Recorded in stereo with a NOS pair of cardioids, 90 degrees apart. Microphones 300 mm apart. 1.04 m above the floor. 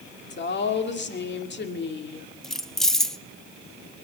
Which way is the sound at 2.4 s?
Straight ahead.